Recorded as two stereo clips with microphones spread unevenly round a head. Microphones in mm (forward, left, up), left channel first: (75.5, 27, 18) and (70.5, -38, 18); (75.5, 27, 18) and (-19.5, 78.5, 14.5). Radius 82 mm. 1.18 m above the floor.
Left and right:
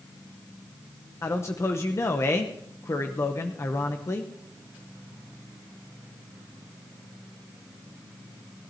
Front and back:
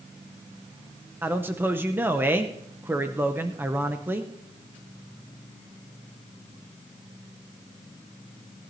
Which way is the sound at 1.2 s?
95° left.